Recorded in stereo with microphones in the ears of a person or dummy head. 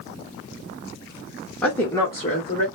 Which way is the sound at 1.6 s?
10° left (ahead or behind).